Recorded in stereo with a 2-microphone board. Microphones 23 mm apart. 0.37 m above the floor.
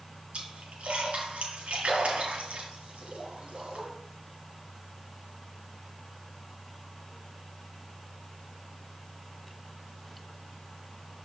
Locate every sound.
0.3 s a splash: 65° right (ahead or behind), 3 m